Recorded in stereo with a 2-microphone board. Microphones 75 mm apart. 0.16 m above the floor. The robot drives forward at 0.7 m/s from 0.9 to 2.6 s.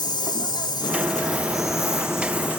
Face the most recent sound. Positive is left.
turn(degrees=25)  # may be behind; listen again after turning